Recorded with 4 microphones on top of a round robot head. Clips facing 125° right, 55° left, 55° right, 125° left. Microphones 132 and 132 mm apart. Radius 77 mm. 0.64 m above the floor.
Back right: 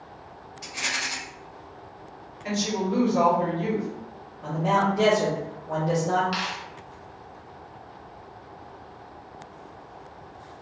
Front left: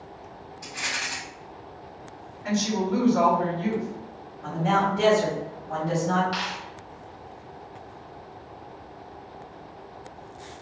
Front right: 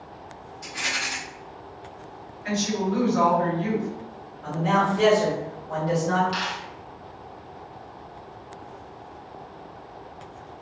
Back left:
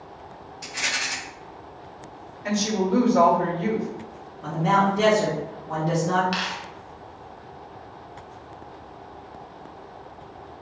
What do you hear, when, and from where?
0.6 s a rattle: 160° left, 0.8 m
2.4 s a woman speaking: 165° left, 1.6 m
4.4 s a man speaking: 160° left, 1.5 m
6.3 s a dropped coin: 160° left, 0.7 m